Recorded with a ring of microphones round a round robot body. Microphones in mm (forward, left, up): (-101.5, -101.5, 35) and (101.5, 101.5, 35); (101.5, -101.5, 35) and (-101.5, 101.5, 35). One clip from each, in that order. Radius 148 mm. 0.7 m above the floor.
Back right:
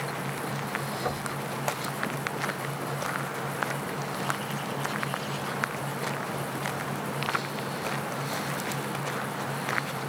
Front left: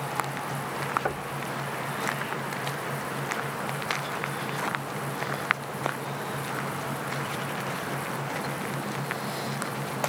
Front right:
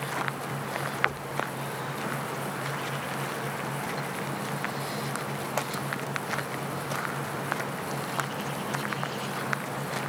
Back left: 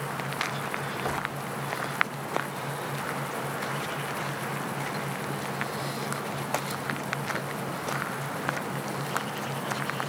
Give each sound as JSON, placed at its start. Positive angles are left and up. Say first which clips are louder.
{"t": 1.1, "sound": "knocking", "louder": "front left 1 dB, back left 4 dB", "azimuth_deg": 25, "distance_m": 1.2}